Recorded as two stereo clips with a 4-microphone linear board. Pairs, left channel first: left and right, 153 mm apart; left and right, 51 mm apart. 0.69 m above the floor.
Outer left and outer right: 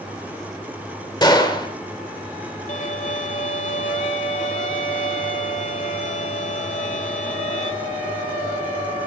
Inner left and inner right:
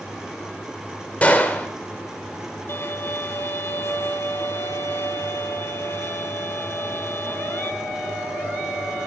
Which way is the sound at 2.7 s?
55° left (ahead or behind).